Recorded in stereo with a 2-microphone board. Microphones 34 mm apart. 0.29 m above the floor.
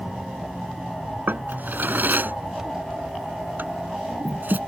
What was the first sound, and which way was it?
A drawer, 65° right (ahead or behind).